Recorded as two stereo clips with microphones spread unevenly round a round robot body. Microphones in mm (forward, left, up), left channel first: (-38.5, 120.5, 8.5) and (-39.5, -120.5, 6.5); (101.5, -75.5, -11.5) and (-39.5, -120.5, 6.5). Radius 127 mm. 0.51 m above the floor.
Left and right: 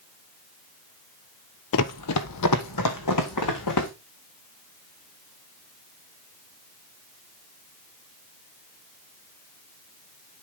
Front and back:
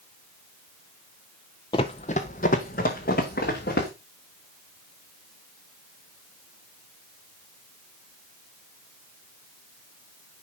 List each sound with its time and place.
1.7 s running footsteps: 85° left, 0.7 m; by 3.9 s 70° left, 3 m